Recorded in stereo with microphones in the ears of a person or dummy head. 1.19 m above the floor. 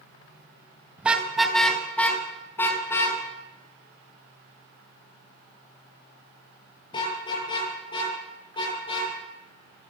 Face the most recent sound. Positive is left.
turn(degrees=30)  # may be behind; listen again after turning